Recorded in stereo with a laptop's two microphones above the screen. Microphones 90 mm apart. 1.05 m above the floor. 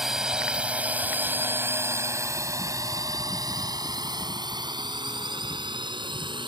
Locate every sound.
0.0 s a drone: 5° right (ahead or behind); by 6.5 s 65° right (ahead or behind)